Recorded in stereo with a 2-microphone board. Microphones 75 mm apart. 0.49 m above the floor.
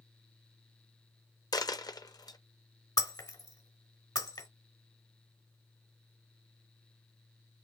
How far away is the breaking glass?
About 1.3 m.